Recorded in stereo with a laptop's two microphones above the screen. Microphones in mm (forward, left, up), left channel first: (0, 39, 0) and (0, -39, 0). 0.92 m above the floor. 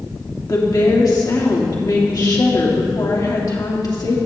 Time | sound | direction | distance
0.5 | a woman speaking | 55° left (ahead or behind) | 2 m